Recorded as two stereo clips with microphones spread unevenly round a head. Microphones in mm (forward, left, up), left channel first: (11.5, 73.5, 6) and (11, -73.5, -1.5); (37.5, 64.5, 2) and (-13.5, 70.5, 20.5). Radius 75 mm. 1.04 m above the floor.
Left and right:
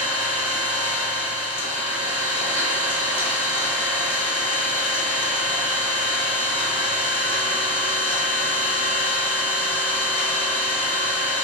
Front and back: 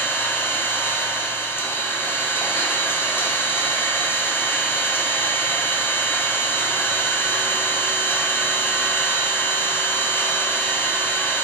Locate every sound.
0.0 s an engine running: 45° left, 1.0 m